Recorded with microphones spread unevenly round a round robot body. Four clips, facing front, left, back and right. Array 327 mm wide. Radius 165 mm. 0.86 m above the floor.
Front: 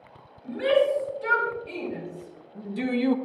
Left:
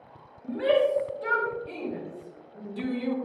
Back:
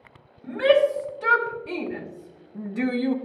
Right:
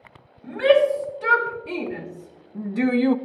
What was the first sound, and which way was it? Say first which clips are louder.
A shout: right 6 dB, back 3 dB; 130° right.